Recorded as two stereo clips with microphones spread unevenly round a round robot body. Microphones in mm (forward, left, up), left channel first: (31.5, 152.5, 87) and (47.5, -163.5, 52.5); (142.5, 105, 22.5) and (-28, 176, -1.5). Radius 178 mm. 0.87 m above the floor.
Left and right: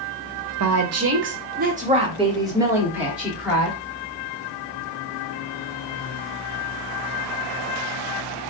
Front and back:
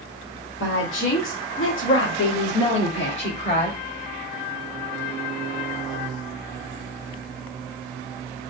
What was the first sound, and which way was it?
A woman speaking, 60° right.